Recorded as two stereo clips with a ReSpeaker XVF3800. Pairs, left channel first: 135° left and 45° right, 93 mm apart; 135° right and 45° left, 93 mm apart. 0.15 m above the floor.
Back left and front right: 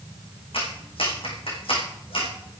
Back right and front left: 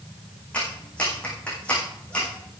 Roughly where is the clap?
Behind left.